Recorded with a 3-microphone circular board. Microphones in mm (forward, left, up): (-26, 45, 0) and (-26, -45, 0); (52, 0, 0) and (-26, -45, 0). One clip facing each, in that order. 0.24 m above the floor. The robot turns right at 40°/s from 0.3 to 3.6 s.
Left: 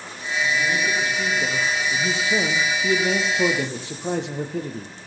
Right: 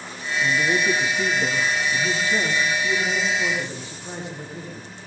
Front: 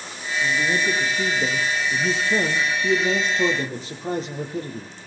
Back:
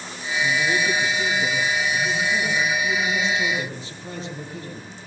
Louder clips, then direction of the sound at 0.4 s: Right 2 dB, even; 45° right.